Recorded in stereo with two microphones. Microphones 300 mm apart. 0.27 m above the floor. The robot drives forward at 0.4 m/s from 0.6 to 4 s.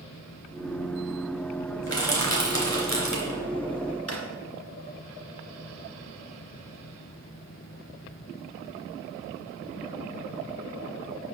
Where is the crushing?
55° left (ahead or behind), 3 m; by 3.4 s 65° left (ahead or behind), 3 m.